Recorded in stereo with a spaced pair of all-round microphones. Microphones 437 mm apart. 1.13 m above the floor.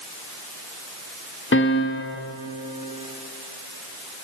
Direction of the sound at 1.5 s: 30° left (ahead or behind).